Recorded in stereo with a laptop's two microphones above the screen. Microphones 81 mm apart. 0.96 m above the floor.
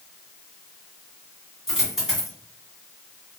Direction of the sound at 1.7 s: 10° right (ahead or behind).